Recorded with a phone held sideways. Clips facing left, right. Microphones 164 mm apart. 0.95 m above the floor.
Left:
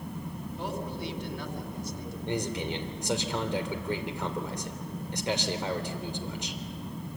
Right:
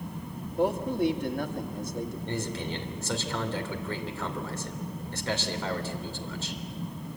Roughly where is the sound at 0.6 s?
Right.